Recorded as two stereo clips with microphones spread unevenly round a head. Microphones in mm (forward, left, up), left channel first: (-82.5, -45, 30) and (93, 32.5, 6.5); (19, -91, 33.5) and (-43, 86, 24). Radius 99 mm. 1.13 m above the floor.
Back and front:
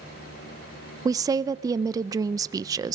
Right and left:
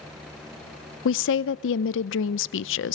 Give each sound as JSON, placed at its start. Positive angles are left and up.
{"t": 1.1, "sound": "a woman speaking", "azimuth_deg": -45, "distance_m": 0.6}